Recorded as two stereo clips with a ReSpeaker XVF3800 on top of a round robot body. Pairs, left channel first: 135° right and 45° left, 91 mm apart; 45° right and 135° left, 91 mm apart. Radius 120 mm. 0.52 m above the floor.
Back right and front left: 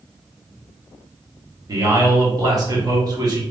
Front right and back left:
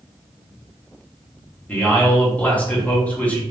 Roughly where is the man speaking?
Ahead.